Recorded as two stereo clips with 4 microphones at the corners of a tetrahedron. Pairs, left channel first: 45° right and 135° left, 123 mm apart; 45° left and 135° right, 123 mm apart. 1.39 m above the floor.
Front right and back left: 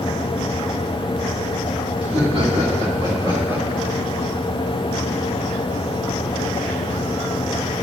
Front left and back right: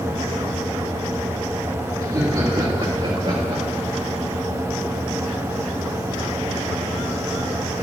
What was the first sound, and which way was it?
Laughter, 170° left.